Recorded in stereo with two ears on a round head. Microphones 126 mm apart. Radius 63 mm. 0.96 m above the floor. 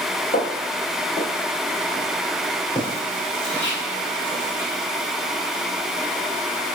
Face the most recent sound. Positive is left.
turn(degrees=5)  # may be behind; listen again after turning